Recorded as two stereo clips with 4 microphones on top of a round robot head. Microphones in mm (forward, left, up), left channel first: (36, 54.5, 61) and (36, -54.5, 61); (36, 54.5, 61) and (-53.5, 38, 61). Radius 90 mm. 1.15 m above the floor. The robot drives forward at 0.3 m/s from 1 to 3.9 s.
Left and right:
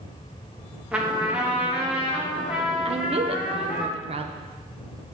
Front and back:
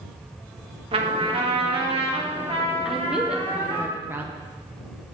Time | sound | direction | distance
0.9 | a trumpet | 170° right | 1.8 m
2.9 | a woman speaking | 85° right | 1.0 m